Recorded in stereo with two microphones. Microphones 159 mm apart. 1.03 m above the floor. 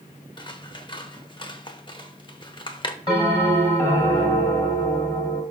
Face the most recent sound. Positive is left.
turn(degrees=30)  # may be behind; listen again after turning